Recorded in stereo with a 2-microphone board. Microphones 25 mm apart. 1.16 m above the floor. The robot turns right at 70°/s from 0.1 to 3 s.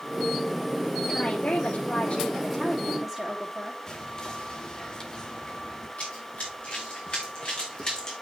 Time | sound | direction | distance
1.1 | a woman speaking | 45° left | 3.5 m
3.9 | whispering | 35° left (ahead or behind) | 2 m
6.0 | running footsteps | 60° left (ahead or behind) | 5.5 m